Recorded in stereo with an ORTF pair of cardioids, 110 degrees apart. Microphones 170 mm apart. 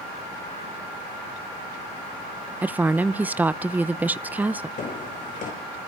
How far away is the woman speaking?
About 0.7 m.